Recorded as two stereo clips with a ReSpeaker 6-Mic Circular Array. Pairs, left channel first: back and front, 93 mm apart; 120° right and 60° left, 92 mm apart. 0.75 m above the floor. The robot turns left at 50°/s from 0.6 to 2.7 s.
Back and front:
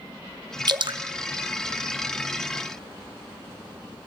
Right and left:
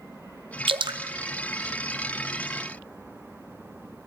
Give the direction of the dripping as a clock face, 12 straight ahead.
11 o'clock.